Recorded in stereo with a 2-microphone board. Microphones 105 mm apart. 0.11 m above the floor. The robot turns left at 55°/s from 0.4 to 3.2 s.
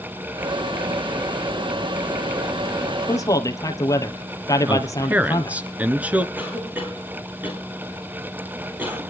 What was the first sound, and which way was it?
A man speaking, 30° left (ahead or behind).